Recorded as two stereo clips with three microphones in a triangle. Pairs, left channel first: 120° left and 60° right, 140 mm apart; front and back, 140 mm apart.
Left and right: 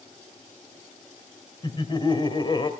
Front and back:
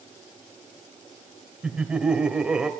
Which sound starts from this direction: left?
Laughter, at 1.6 s.